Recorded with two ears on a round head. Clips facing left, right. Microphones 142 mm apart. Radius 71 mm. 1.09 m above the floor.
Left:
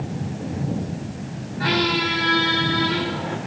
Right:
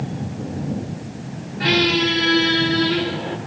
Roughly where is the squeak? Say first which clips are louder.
Right 3 dB; right.